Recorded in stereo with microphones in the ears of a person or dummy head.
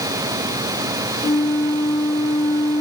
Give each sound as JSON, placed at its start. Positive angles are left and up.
{"t": 1.2, "sound": "a flute", "side_deg": 20, "distance_m": 0.6}